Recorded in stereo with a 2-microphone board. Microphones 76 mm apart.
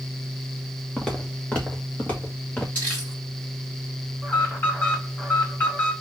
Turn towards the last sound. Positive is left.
turn(degrees=25)  # may be behind; listen again after turning